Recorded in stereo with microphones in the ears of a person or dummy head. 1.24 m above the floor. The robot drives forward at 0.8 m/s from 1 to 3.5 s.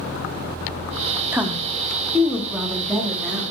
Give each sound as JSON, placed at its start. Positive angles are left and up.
{"t": 1.3, "sound": "a woman speaking", "side_deg": -5, "distance_m": 0.5}